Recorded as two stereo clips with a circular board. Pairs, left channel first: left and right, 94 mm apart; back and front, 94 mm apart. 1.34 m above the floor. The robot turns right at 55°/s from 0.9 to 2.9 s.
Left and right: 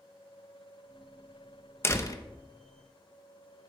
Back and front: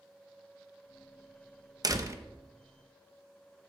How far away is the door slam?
About 0.7 m.